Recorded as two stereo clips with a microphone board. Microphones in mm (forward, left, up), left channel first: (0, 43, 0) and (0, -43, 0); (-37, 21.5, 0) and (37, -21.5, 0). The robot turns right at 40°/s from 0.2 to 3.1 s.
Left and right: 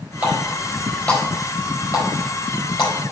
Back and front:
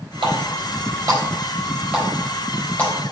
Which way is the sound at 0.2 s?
20° right.